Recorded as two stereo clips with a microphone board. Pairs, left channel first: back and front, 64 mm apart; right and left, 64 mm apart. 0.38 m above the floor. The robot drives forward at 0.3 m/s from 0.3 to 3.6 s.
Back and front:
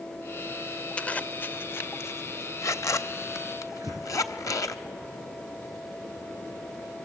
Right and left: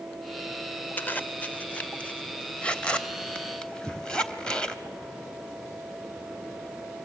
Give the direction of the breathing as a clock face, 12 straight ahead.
1 o'clock.